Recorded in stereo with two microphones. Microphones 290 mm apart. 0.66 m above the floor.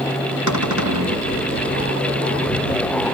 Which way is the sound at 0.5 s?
85° right.